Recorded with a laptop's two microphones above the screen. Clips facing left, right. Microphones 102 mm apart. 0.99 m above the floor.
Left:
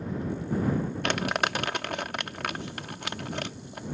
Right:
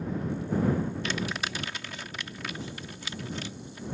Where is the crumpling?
60° left (ahead or behind).